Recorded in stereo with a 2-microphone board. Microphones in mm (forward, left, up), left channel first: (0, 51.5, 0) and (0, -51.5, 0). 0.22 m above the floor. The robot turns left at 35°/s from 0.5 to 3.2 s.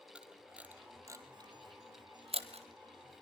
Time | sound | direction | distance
0.1 | a camera shutter | 10° right (ahead or behind) | 1.6 m